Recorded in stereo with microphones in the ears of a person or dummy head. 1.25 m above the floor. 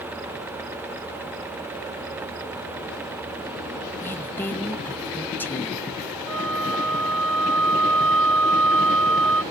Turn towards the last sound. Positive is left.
turn(degrees=0)  # may be behind; listen again after turning